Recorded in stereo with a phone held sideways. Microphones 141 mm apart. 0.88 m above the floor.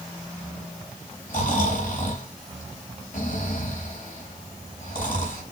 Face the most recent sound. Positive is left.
turn(degrees=75)  # may be behind; listen again after turning